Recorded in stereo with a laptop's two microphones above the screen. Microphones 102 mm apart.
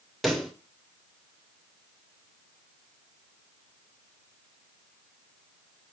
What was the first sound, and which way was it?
A pop, centre (ahead or behind).